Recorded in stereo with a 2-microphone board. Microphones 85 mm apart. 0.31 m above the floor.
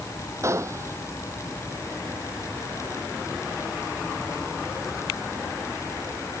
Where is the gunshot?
30° right (ahead or behind).